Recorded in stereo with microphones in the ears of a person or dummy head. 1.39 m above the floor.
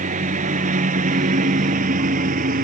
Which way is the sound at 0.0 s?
45° right (ahead or behind).